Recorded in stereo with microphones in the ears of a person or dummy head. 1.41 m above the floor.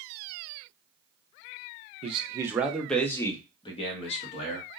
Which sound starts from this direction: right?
A man speaking, at 2.0 s.